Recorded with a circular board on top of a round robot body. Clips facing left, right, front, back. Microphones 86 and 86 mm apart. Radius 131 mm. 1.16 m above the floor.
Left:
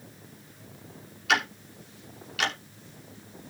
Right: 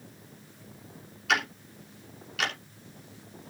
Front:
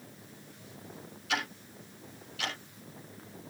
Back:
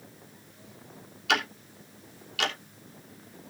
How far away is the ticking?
About 3.5 m.